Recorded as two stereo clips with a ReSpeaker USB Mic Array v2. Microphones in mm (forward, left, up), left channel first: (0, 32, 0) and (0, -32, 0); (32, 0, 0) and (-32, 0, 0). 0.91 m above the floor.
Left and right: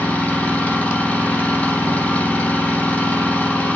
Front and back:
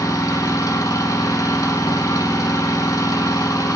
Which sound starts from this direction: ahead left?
An engine running, at 0.0 s.